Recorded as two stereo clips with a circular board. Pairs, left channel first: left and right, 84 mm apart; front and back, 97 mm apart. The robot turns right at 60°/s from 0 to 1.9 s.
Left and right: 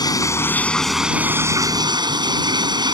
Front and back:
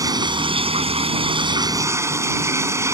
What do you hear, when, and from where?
0.0 s running water: 125° left; by 2.9 s 120° right